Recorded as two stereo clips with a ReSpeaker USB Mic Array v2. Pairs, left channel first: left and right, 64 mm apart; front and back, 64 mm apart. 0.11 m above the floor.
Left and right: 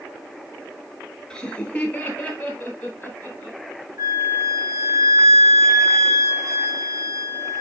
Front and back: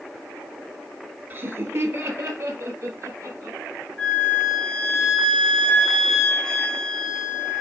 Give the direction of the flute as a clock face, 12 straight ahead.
2 o'clock.